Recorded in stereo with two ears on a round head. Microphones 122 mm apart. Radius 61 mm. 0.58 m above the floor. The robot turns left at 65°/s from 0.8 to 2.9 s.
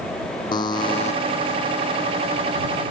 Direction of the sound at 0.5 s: 35° left (ahead or behind).